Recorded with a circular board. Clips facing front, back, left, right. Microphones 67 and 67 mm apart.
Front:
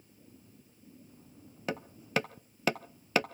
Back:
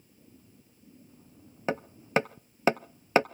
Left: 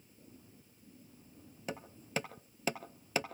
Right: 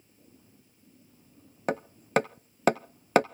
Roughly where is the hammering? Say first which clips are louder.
Back 5 dB, right 12 dB; behind right.